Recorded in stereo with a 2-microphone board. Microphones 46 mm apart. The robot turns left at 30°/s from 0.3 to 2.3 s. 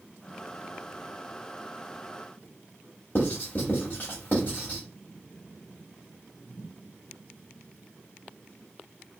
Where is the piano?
No piano in this recording.